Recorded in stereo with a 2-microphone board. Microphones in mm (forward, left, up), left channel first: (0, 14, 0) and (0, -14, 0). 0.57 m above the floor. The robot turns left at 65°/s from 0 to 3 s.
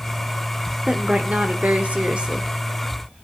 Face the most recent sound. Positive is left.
turn(degrees=175)